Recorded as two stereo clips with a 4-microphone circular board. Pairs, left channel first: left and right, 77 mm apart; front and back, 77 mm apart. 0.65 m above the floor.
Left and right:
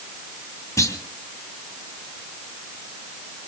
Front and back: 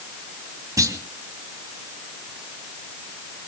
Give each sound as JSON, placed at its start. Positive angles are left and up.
{"t": 0.8, "sound": "a clunk", "azimuth_deg": 140, "distance_m": 2.5}